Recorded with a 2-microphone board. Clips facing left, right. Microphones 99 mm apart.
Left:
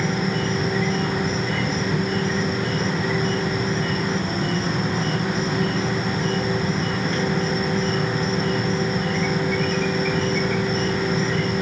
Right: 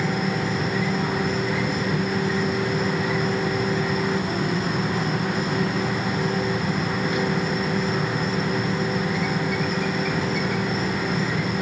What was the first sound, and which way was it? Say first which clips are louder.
An insect: left 1 dB; 10° right (ahead or behind).